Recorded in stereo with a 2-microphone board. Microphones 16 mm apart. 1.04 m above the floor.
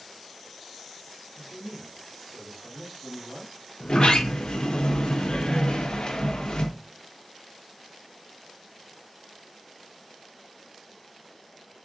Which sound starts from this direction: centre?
A man speaking, at 1.4 s.